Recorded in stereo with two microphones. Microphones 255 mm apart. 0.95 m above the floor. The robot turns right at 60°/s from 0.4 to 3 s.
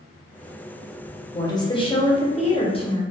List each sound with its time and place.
1.3 s a woman speaking: 10° left (ahead or behind), 0.7 m; by 3.0 s 20° left (ahead or behind), 0.7 m